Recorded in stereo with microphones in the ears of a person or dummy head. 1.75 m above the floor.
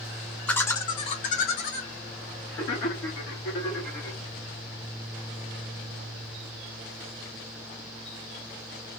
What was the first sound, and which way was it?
Laughter, 5° left (ahead or behind).